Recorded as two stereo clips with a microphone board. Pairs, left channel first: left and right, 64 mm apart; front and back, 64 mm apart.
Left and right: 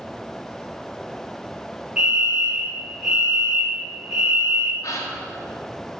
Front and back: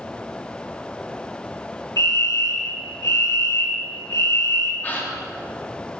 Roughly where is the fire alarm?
Ahead.